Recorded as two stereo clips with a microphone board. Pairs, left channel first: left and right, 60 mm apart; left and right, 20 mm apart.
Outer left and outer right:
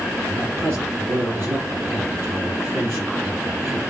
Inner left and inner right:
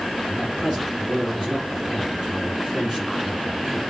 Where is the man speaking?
40° right (ahead or behind), 3 m.